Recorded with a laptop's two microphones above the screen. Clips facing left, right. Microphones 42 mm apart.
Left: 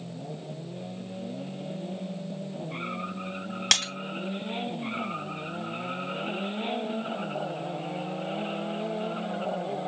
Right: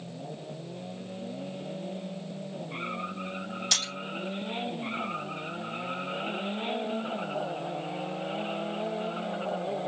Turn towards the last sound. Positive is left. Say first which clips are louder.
# left 6 dB
turn(degrees=60)  # may be behind; listen again after turning